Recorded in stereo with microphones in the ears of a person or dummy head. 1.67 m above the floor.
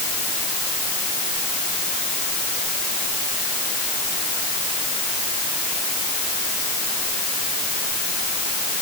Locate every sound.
Only background noise.